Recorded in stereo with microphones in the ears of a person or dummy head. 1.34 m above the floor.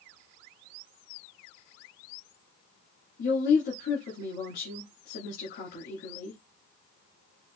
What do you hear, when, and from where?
3.2 s a woman speaking: 65° left (ahead or behind), 1.9 m